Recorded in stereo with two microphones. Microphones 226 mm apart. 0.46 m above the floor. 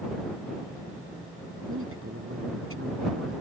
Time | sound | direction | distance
1.7 | a man speaking | 70° right (ahead or behind) | ?